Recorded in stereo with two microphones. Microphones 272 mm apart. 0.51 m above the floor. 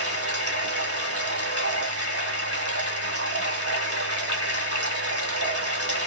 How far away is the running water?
About 0.8 m.